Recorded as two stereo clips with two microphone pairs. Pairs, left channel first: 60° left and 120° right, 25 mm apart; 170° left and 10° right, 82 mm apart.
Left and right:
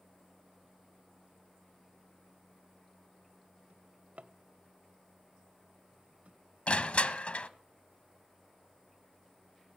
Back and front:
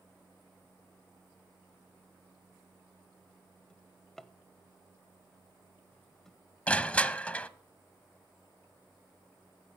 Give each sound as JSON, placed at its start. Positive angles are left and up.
{"t": 3.7, "sound": "a drawer", "azimuth_deg": -105, "distance_m": 0.5}
{"t": 6.7, "sound": "crushing", "azimuth_deg": 95, "distance_m": 0.5}